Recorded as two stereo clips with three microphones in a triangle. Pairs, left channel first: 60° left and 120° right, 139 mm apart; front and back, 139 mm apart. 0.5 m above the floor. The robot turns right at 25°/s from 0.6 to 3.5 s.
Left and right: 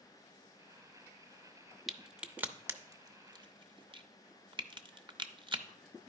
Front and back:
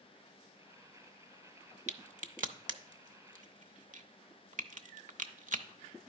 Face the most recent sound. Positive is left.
turn(degrees=-170)